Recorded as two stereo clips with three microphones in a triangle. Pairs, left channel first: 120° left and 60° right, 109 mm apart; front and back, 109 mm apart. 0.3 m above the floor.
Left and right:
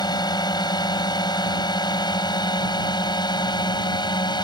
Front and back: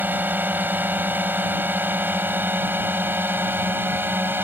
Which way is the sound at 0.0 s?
115° left.